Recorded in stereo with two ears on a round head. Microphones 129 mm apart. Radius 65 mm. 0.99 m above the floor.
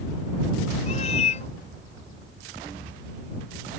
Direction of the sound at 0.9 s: 45° left (ahead or behind).